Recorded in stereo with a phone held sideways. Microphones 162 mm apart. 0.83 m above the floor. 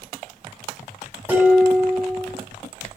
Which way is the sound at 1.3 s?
15° right (ahead or behind).